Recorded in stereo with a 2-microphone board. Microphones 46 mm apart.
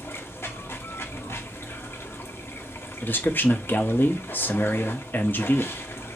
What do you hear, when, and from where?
0.0 s running water: 60° left (ahead or behind), 0.7 m
3.0 s a man speaking: 45° left (ahead or behind), 0.7 m